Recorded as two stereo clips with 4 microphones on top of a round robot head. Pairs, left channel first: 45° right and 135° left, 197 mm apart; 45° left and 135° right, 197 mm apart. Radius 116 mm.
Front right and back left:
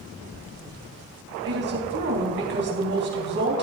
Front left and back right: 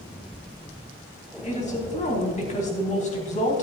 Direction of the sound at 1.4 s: 100° left.